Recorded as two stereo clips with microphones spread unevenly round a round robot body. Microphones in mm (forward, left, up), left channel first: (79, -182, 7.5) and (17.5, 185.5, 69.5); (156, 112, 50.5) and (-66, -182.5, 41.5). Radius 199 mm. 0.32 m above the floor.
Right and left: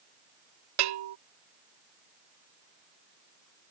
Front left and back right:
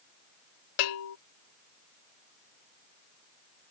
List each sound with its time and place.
0.8 s a bell: 70° left